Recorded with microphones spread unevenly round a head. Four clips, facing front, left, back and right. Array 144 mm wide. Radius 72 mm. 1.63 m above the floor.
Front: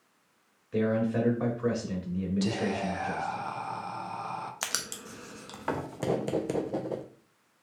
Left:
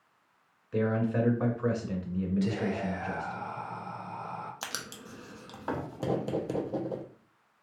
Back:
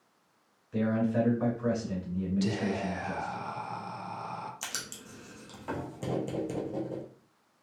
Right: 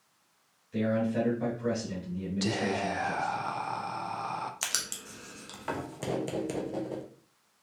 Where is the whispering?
55° right, 0.6 m.